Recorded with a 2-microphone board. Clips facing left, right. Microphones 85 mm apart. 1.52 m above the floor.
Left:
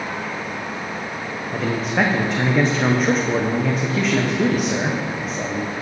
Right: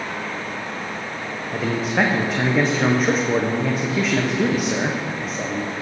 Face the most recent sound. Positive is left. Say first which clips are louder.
# even
turn(degrees=0)  # may be behind; listen again after turning